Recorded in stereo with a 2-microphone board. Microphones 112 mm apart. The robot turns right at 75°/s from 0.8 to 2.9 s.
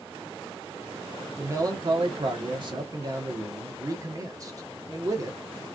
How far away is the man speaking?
About 1.2 m.